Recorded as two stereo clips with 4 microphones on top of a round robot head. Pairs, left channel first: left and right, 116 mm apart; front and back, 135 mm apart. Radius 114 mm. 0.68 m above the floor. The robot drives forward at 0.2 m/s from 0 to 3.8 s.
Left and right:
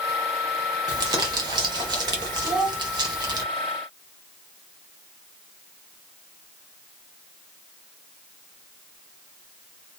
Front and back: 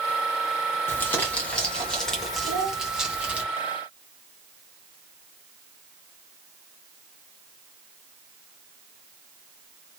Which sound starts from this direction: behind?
A child speaking, at 2.4 s.